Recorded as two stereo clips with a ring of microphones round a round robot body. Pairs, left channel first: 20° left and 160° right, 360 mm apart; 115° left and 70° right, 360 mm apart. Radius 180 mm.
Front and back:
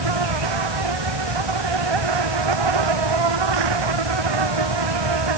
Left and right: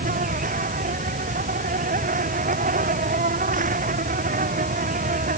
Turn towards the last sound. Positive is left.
turn(degrees=-135)